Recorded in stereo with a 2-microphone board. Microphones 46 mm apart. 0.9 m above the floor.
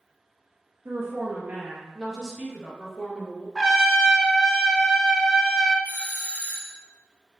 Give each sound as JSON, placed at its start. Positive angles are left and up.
{"t": 0.8, "sound": "a woman speaking", "side_deg": -55, "distance_m": 1.1}
{"t": 3.5, "sound": "a trumpet", "side_deg": 0, "distance_m": 0.6}
{"t": 5.8, "sound": "a doorbell", "side_deg": 30, "distance_m": 0.7}